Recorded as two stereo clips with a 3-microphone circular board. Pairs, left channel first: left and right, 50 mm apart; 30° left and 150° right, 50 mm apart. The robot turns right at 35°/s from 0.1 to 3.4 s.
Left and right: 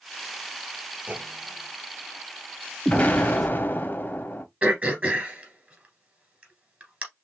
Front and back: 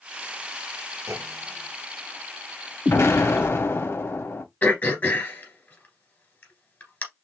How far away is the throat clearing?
About 1.8 m.